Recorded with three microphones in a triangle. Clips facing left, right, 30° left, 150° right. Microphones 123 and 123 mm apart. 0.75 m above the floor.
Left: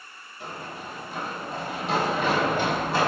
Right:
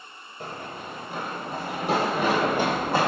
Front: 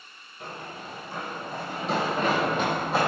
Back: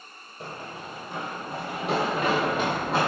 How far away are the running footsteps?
About 1.2 m.